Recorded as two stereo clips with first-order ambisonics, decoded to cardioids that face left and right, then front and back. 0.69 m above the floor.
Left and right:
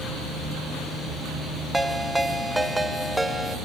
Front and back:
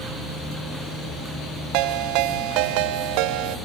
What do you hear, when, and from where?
1.7 s a ringtone: 175° right, 0.8 m